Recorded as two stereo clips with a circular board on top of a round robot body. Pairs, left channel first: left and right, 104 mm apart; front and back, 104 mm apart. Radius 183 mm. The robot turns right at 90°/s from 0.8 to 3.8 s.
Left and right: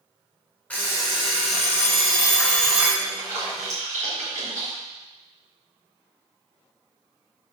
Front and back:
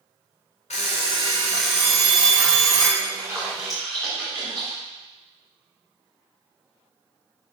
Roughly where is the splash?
Behind right.